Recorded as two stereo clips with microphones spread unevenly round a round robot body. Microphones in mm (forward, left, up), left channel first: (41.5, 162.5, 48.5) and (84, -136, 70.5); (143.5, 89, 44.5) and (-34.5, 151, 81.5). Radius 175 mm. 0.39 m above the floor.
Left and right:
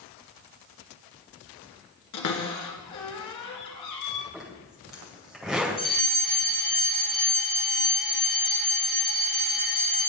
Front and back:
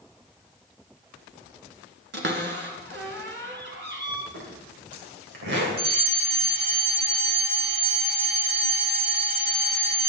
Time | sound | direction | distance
2.1 | a cupboard door | 135° left | 1.9 m
4.3 | a zipper | 175° right | 2.5 m
5.8 | a fire alarm | straight behind | 5 m